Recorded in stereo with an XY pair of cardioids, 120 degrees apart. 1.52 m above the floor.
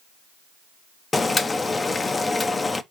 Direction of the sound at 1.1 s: 20° left.